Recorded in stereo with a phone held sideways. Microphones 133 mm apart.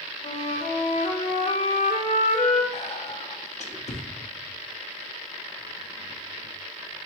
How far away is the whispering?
About 0.6 m.